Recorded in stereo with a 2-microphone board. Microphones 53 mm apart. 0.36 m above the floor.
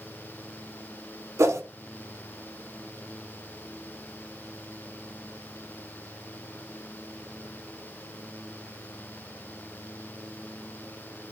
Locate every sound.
1.4 s a whoosh: 70° right (ahead or behind), 0.5 m